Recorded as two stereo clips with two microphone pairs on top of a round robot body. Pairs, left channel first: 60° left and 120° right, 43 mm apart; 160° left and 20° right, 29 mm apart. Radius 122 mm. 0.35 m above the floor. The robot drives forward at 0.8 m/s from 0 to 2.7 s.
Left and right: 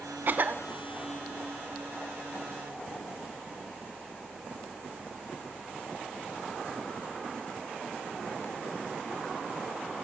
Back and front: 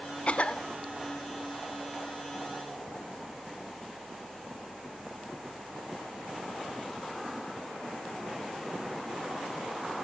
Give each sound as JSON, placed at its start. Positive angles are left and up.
{"t": 0.3, "sound": "a cough", "azimuth_deg": -155, "distance_m": 1.0}